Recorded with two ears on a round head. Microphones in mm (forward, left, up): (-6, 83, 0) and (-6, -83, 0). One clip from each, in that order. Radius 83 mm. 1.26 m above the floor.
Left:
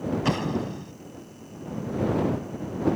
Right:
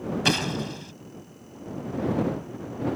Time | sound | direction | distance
0.2 | an explosion | 80° right | ?